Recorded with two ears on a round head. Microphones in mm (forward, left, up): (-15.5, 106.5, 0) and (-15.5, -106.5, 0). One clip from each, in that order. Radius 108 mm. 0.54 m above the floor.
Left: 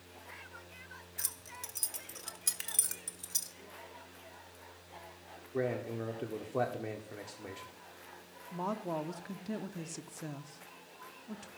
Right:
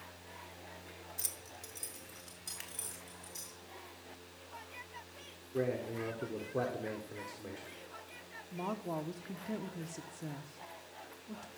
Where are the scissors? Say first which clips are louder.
Left 4 dB; 25° left (ahead or behind), 1.3 m.